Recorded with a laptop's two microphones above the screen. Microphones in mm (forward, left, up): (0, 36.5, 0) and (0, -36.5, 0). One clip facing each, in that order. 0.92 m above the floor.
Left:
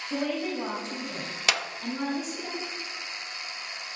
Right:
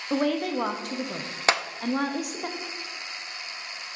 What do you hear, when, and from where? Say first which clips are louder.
0.1 s a woman speaking: right 5 dB; 65° right (ahead or behind), 0.7 m
1.5 s a clap: right 5 dB; 35° right (ahead or behind), 0.5 m